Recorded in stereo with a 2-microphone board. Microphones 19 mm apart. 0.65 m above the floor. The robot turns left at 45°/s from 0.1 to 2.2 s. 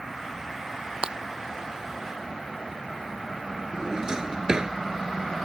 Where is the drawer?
30° right (ahead or behind).